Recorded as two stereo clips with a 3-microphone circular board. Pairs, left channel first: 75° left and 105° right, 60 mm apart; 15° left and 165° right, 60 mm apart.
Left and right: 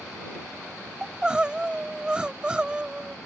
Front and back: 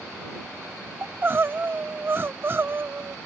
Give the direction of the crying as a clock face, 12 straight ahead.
6 o'clock.